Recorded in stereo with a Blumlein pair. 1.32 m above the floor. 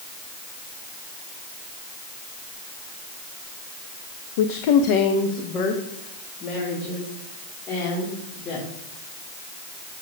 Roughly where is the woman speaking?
Ahead left.